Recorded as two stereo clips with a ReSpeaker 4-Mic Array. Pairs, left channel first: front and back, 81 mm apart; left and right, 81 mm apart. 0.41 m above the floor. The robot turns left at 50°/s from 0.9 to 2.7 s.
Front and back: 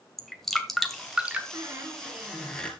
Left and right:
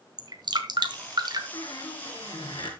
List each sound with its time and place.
0.2 s dripping: 85° right, 1.9 m; by 1.4 s 115° right, 1.9 m
1.5 s a squeak: 135° left, 2.5 m; by 2.7 s 75° left, 2.5 m